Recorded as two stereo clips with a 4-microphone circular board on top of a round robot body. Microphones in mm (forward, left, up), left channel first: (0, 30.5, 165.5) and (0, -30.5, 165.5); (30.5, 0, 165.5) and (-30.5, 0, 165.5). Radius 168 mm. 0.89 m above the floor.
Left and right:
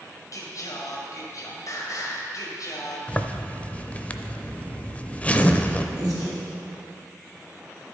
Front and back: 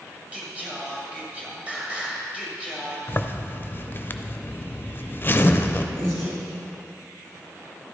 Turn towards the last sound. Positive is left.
turn(degrees=-135)